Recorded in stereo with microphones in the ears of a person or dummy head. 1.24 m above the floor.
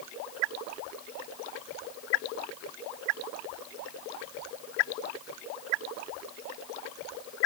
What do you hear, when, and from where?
Only background noise.